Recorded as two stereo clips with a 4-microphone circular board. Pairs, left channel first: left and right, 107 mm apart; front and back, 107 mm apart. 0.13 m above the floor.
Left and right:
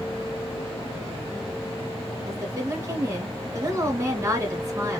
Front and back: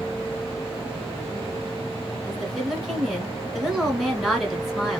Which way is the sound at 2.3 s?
85° right.